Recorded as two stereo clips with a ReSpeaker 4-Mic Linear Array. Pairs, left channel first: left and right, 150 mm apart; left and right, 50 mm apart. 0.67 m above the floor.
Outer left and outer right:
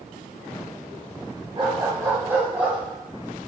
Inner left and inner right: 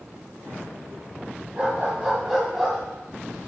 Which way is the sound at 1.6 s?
35° right (ahead or behind).